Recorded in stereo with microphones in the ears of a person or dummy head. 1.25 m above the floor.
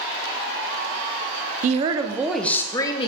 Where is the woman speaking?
45° right (ahead or behind), 0.5 m; by 3.1 s 25° left (ahead or behind), 0.8 m.